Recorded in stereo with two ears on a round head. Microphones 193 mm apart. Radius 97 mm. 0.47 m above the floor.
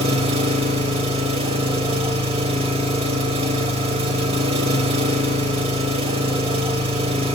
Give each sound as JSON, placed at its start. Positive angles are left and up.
{"t": 0.0, "sound": "an engine running", "side_deg": -25, "distance_m": 1.1}